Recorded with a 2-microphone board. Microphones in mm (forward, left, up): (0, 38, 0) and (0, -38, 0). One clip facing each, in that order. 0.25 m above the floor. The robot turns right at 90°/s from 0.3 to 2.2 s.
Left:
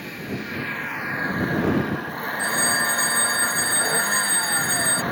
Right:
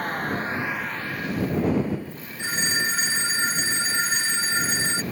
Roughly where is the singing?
No singing in this recording.